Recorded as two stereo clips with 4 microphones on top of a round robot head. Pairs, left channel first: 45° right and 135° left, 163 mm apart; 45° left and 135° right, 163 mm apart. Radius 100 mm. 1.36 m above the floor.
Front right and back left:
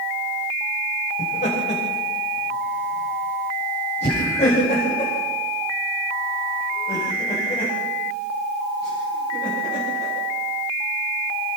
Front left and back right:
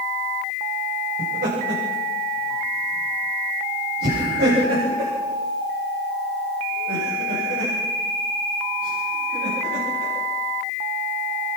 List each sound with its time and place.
1.2 s laughter: 95° right, 8 m; by 10.1 s 105° right, 12.5 m